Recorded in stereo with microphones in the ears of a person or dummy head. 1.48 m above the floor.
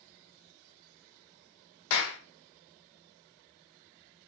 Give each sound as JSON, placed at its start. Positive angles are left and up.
{"t": 1.9, "sound": "a clap", "side_deg": 80, "distance_m": 0.9}